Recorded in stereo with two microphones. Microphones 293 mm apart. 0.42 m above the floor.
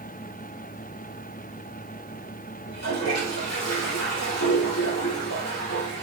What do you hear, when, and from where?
2.6 s a toilet flushing: 60° left (ahead or behind), 5.5 m